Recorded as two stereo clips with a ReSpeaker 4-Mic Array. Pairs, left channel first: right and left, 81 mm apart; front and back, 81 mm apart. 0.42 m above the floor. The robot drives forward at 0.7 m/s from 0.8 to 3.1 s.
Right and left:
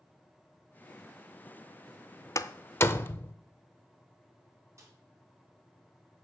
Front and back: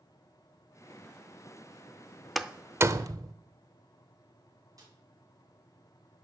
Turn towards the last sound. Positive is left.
turn(degrees=140)